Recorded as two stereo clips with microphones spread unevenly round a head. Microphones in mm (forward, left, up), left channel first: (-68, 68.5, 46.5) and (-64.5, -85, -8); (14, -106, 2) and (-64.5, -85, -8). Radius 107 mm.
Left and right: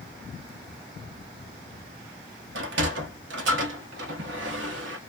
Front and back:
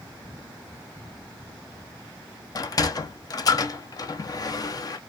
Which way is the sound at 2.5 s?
60° right.